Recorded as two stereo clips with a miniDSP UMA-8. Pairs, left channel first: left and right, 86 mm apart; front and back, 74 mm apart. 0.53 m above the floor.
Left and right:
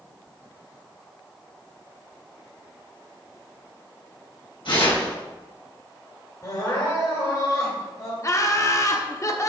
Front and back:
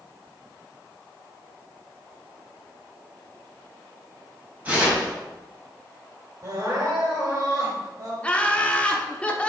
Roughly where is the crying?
Behind left.